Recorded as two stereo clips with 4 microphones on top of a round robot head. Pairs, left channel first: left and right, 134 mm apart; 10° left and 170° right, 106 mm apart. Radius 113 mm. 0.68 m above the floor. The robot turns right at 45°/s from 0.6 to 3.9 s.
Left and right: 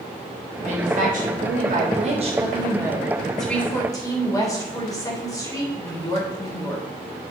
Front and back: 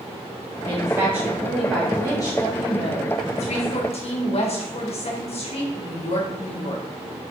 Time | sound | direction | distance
0.6 | a woman speaking | 120° right | 3.5 m